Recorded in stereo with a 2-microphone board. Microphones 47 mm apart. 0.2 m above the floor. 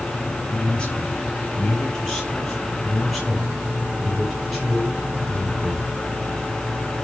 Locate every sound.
0.5 s a man speaking: 20° left (ahead or behind), 4.5 m; by 6.0 s 5° right (ahead or behind), 6 m